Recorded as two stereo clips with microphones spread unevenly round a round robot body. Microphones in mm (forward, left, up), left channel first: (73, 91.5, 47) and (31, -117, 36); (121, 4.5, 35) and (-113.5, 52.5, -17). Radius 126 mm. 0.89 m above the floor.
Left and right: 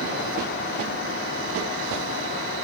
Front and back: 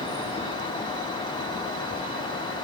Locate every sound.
Only background noise.